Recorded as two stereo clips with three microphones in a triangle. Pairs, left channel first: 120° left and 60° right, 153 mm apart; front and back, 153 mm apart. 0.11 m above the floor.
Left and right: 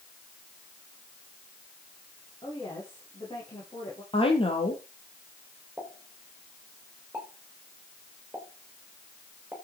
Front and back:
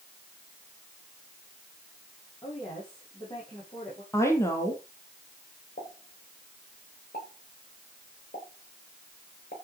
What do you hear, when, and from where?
2.4 s a woman speaking: 60° left, 8 m
4.1 s a woman speaking: 70° left, 3 m
5.8 s a pop: 20° left, 6 m